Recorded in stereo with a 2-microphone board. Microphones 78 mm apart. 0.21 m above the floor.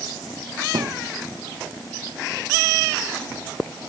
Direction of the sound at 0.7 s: 55° right (ahead or behind).